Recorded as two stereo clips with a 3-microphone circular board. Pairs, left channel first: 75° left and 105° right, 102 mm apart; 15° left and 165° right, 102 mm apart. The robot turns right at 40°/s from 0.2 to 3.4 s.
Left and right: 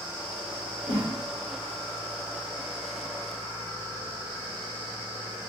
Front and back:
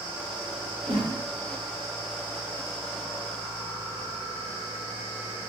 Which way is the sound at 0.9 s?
140° right.